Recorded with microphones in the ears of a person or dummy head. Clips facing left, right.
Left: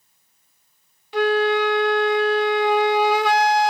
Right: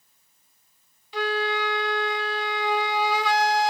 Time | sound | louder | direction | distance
1.1 | a flute | left 8 dB | 50° left (ahead or behind) | 0.5 m